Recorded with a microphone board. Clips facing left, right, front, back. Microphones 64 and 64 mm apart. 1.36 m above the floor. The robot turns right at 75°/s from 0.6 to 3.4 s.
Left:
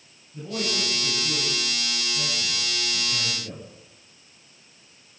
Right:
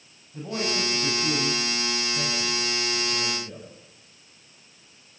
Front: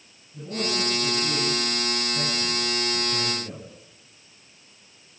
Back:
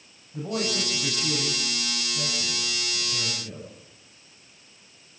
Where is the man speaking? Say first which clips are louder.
Right 1 dB, even; 145° right, 9.5 m; by 3.7 s 65° left, 9.5 m.